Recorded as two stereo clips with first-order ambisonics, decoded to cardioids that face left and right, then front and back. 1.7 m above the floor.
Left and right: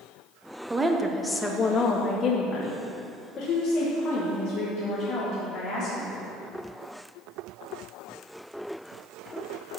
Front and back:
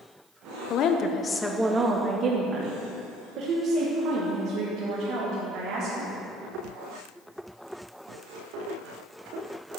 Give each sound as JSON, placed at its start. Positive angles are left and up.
{"t": 0.7, "sound": "a woman speaking", "azimuth_deg": -20, "distance_m": 0.7}